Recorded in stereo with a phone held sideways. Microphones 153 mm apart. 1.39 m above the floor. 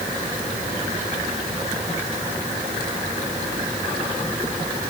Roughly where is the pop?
I don't hear a pop.